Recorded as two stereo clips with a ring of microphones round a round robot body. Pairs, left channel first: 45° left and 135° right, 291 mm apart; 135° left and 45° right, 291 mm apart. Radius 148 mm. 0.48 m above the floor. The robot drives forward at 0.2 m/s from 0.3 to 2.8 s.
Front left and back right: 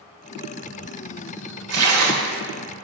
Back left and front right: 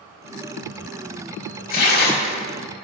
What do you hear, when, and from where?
1.7 s tearing paper: 165° right, 1.5 m; by 2.4 s 170° right, 1.6 m